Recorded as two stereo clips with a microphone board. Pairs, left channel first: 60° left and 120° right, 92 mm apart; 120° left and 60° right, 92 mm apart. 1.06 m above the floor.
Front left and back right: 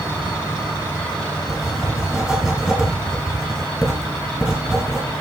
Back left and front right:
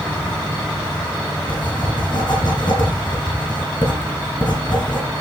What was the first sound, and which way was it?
Writing, 150° left.